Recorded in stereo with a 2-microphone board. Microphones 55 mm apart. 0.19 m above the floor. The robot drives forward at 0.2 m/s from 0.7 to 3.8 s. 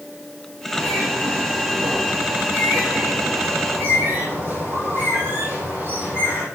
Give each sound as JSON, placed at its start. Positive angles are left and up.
{"t": 0.7, "sound": "a bird", "side_deg": -45, "distance_m": 6.0}